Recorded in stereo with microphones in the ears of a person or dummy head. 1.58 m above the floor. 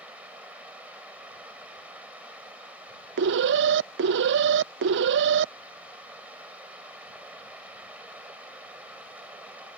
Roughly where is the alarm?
Right.